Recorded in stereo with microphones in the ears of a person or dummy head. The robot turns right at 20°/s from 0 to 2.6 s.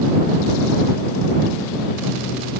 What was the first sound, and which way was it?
Only background noise.